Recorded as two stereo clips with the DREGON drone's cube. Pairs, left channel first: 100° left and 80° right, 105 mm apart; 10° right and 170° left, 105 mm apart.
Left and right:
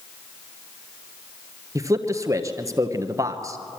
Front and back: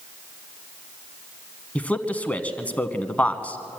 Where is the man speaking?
80° right, 1.2 m.